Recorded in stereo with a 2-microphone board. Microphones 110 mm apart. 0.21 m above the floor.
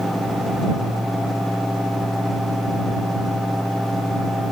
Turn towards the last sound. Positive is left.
No sound to turn to.